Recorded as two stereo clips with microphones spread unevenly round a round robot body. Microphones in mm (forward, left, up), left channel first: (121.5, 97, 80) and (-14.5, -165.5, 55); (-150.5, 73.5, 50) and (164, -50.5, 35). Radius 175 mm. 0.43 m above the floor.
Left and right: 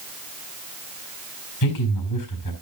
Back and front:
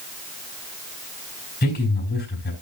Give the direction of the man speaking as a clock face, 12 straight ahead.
9 o'clock.